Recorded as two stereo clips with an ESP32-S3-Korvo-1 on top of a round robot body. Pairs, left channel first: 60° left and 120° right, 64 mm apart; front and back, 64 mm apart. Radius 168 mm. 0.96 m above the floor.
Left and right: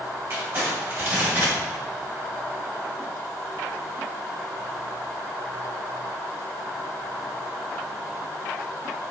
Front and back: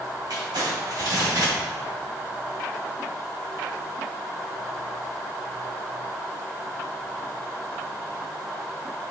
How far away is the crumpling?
About 3.5 m.